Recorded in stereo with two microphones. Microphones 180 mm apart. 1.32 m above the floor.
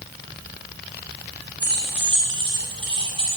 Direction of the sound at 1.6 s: 25° right (ahead or behind).